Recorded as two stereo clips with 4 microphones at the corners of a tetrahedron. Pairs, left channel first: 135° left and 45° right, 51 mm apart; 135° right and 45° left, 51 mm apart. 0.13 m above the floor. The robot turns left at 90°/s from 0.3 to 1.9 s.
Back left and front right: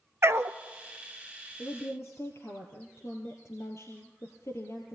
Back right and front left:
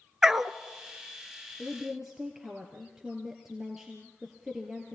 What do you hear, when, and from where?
0.2 s a dog barking: 30° right, 0.8 m; by 0.6 s 55° right, 0.8 m
1.6 s a woman speaking: 150° left, 3.5 m; by 5.0 s 125° left, 3.5 m